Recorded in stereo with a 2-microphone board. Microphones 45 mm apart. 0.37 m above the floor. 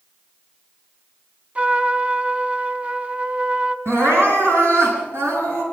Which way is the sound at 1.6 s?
25° right (ahead or behind).